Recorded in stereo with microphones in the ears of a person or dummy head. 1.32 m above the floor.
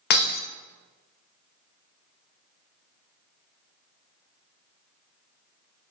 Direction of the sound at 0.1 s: 45° left (ahead or behind).